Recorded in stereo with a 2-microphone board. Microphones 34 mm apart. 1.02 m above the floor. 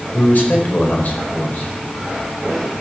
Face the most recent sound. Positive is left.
turn(degrees=55)  # may be behind; listen again after turning